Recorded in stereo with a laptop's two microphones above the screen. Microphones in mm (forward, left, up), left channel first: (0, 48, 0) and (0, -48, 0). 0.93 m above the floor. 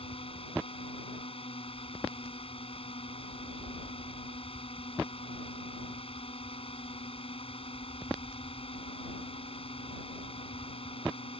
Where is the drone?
75° left (ahead or behind).